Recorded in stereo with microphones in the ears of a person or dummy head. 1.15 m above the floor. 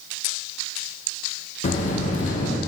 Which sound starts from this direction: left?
A buzzer, at 1.6 s.